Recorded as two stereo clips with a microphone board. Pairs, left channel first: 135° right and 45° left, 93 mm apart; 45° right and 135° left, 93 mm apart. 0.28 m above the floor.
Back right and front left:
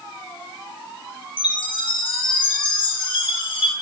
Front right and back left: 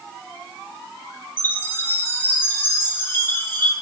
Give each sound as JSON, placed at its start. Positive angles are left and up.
{"t": 1.4, "sound": "a chime", "azimuth_deg": -110, "distance_m": 2.5}